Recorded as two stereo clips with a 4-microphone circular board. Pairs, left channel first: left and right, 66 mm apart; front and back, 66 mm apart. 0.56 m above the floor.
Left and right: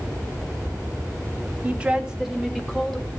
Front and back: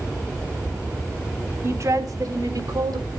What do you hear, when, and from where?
1.6 s a woman speaking: 150° right, 1.3 m; by 3.1 s straight behind, 3 m